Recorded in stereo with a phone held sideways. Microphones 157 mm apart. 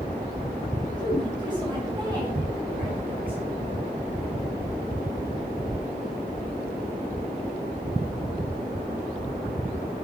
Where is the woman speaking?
25° right (ahead or behind), 7 m; by 3.4 s 30° right (ahead or behind), 6 m.